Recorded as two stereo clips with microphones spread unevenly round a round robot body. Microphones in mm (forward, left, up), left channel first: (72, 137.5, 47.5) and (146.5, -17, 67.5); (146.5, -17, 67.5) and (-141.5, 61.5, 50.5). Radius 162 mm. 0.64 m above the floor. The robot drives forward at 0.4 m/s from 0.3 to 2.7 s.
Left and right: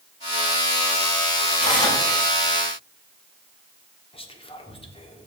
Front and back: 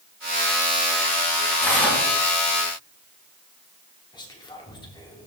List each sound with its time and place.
1.6 s tearing paper: 70° left, 3 m
4.1 s whispering: 60° left, 1.5 m